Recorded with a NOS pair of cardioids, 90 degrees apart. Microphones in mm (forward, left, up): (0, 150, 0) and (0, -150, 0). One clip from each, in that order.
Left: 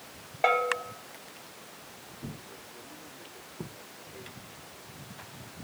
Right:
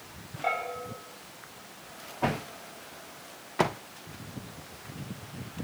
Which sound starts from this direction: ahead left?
A bell, at 0.4 s.